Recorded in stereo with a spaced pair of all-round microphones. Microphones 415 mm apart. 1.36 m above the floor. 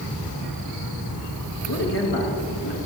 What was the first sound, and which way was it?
A man speaking, 65° left (ahead or behind).